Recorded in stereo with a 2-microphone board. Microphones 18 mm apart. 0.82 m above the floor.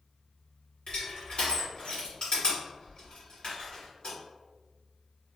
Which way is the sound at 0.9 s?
55° left (ahead or behind).